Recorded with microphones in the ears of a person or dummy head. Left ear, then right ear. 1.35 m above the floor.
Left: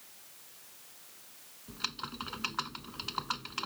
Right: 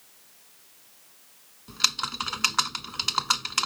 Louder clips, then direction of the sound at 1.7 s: Right 12 dB; 65° right (ahead or behind).